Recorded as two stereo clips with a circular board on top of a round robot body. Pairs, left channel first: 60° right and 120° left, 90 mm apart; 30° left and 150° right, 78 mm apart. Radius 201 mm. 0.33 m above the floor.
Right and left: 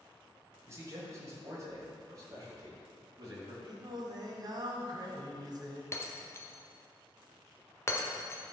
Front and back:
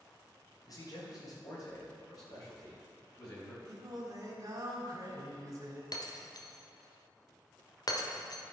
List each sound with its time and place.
0.7 s a man speaking: 65° left, 3 m; by 3.5 s 70° left, 4.5 m
3.6 s singing: 165° left, 1.6 m
5.9 s breaking glass: straight ahead, 1.2 m